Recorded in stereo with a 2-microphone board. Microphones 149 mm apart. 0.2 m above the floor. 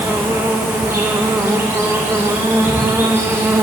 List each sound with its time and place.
0.0 s an insect: 15° right (ahead or behind), 3.5 m